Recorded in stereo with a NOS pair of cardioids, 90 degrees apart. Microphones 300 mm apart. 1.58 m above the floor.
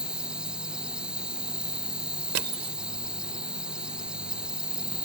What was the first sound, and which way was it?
An insect, 5° right.